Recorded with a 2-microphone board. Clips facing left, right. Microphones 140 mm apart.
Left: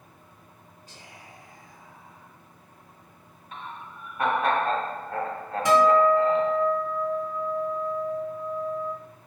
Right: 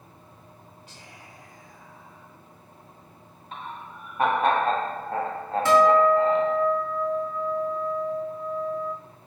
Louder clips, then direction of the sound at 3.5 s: Right 2 dB; 25° right (ahead or behind).